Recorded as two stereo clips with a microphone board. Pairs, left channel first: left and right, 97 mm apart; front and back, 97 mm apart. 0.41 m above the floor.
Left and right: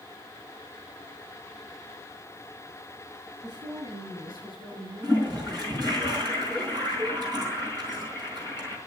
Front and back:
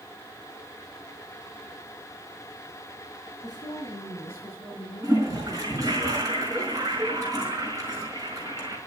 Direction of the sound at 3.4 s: 55° right.